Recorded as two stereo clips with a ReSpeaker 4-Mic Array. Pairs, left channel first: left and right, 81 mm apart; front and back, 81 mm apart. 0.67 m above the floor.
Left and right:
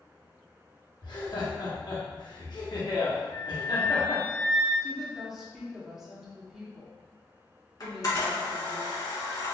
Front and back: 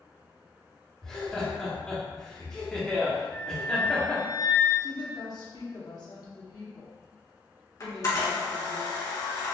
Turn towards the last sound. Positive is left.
turn(degrees=45)